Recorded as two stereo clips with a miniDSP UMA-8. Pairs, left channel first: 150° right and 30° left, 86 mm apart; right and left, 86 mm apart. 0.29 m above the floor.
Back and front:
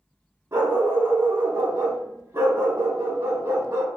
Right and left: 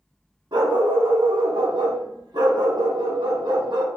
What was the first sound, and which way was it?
A dog barking, 85° left.